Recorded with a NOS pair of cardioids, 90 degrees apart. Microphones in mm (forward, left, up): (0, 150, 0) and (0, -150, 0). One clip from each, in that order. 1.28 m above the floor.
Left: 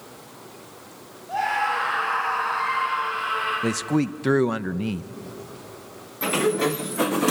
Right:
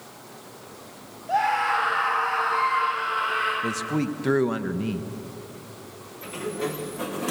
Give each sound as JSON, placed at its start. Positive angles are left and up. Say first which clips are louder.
{"t": 1.3, "sound": "a scream", "louder": "right 1 dB", "azimuth_deg": -55, "distance_m": 6.5}
{"t": 3.6, "sound": "a man speaking", "louder": "left 2 dB", "azimuth_deg": 35, "distance_m": 0.8}
{"t": 6.2, "sound": "a sliding door", "louder": "left 9 dB", "azimuth_deg": 65, "distance_m": 0.7}